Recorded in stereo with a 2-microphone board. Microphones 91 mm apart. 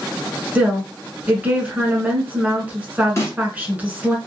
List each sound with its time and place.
0.6 s a woman speaking: 15° right (ahead or behind), 1.1 m
3.2 s a snare drum: 35° left (ahead or behind), 1.2 m